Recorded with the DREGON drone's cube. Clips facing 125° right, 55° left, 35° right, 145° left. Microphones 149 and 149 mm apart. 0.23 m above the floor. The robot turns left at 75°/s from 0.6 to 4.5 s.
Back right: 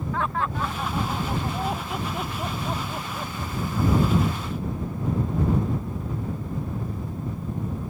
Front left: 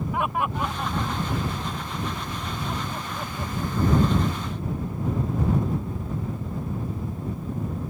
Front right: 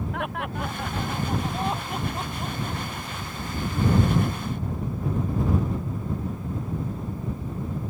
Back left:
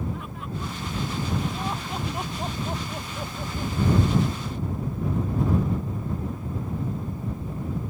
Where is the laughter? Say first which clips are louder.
Even, front right 5 dB; 20° right; by 3.7 s 105° left.